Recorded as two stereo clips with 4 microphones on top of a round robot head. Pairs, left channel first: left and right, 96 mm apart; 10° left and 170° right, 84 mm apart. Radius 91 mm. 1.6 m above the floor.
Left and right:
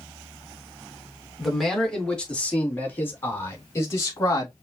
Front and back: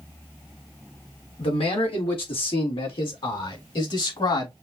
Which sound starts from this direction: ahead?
A man speaking, at 1.4 s.